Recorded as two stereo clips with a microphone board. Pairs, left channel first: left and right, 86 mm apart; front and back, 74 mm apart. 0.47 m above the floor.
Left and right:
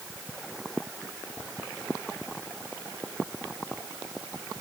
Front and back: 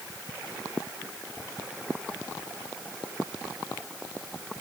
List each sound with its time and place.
Only background noise.